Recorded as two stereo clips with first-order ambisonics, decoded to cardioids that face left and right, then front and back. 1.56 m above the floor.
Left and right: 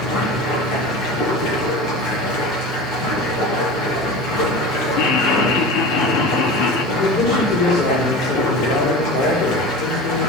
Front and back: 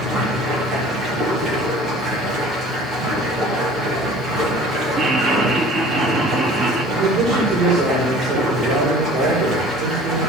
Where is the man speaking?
125° left, 4 m.